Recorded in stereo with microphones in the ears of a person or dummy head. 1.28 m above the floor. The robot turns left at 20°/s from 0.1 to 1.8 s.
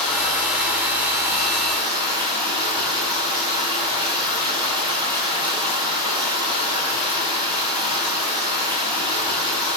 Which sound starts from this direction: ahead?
Running water, at 0.0 s.